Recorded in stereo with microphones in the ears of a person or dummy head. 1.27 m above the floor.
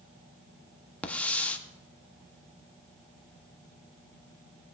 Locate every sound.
1.0 s a hiss: 5° left (ahead or behind), 0.7 m